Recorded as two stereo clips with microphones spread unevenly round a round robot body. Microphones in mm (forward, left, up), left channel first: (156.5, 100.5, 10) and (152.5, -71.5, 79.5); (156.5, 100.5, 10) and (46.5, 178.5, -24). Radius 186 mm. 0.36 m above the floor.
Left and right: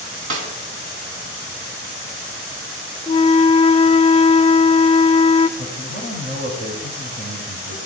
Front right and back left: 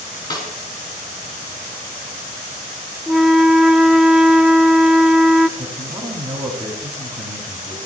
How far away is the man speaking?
About 1.9 m.